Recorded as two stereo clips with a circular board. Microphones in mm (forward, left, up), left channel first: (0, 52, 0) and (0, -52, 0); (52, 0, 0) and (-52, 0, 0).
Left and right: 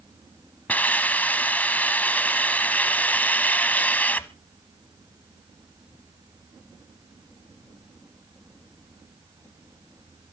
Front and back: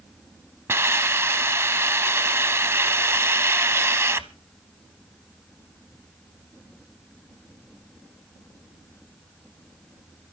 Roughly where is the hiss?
Behind left.